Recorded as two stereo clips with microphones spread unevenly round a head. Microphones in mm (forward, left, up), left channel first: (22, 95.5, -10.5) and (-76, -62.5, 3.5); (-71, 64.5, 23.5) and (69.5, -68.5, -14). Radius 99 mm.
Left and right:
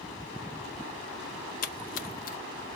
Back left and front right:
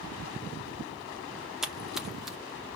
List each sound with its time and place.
1.6 s a splash: 35° left, 0.6 m